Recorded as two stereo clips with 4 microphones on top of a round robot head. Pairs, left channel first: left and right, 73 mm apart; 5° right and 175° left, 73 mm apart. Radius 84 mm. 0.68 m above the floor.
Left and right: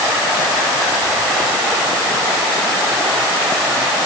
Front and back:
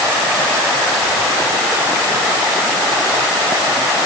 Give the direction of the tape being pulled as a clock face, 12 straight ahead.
I don't hear tape being pulled.